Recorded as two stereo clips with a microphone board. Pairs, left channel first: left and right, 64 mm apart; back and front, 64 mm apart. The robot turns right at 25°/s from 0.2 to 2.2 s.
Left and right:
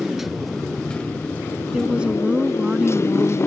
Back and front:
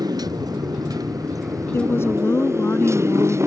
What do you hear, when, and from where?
0.0 s a motorcycle: straight ahead; by 3.5 s 45° left
1.7 s a woman speaking: 165° right; by 3.4 s 150° right